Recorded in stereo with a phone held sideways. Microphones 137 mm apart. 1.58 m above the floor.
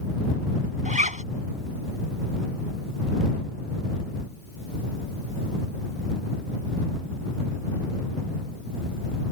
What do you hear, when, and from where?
0.8 s a zipper: 65° right (ahead or behind)